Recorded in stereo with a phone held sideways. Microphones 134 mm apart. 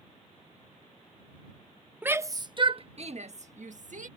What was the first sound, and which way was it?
A shout, 10° right (ahead or behind).